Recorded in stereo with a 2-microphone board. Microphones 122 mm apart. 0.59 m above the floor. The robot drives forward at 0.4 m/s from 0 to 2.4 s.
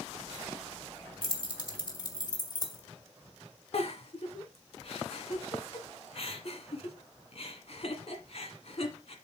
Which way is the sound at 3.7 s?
55° left (ahead or behind).